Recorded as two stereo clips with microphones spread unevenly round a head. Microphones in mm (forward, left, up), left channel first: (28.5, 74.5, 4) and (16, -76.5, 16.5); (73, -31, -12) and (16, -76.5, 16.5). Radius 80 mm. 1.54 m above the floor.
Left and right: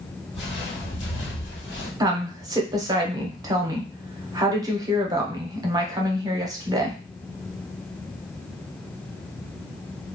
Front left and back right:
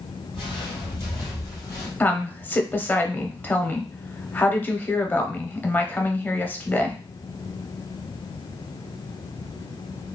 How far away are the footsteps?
About 1.8 m.